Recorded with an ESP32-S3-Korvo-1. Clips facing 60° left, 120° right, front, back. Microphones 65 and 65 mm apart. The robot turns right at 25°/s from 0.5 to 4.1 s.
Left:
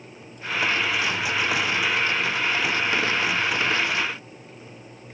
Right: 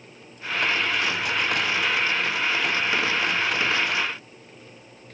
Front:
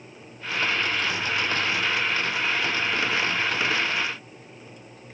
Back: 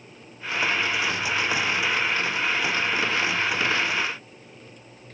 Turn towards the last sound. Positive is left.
No sound to turn to.